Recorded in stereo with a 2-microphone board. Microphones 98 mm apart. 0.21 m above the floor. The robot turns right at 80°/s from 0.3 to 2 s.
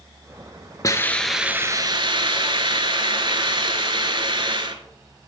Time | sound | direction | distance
0.8 | a hiss | 145° left | 0.8 m